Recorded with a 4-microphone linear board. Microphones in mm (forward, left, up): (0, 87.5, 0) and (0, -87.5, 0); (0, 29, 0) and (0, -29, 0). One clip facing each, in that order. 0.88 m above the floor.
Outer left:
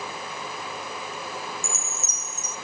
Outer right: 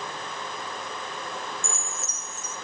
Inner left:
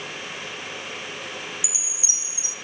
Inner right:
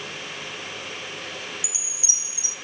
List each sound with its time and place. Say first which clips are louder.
1.6 s a chime: outer left 1 dB, inner left 1 dB; 15° left (ahead or behind), 3.5 m